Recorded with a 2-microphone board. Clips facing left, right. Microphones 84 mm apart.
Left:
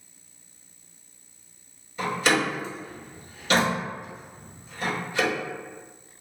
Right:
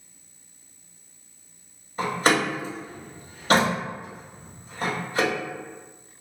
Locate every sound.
2.0 s a door slam: 40° right (ahead or behind), 1.3 m